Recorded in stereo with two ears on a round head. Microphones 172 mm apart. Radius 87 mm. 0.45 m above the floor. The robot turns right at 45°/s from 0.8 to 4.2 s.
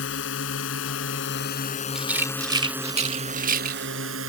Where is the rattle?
5° right (ahead or behind); by 4.3 s 45° right (ahead or behind).